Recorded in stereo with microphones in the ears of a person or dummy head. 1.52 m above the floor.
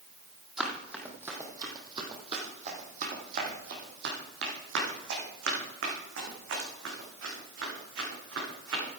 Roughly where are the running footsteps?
Centre.